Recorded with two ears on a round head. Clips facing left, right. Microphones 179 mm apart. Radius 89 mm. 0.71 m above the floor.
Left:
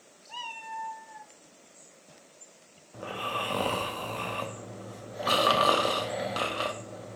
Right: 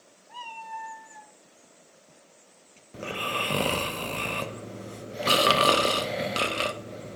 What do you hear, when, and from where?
0.3 s a cat meowing: 40° left (ahead or behind), 0.7 m; by 1.3 s 35° right (ahead or behind), 1.0 m
2.9 s snoring: 30° right (ahead or behind), 0.5 m